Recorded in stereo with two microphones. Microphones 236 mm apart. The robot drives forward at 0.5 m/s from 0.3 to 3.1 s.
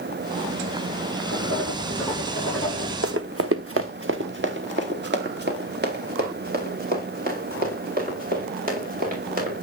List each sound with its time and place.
1.3 s writing: 70° right (ahead or behind), 6.5 m; by 2.9 s 65° right (ahead or behind), 7 m
3.0 s running footsteps: 70° right (ahead or behind), 0.7 m; by 9.6 s 35° right (ahead or behind), 6 m